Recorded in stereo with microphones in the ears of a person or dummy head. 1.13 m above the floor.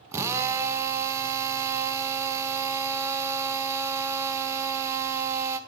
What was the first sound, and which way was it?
A drill, 20° right (ahead or behind).